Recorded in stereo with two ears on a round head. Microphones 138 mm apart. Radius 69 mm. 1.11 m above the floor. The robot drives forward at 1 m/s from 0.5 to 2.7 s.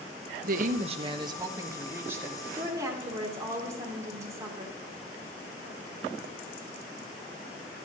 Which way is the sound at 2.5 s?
20° right (ahead or behind).